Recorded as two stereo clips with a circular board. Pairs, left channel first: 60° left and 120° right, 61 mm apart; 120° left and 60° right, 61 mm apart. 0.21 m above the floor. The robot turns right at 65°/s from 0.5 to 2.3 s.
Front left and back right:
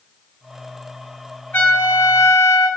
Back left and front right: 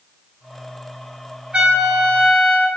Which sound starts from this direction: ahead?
A trumpet, at 1.5 s.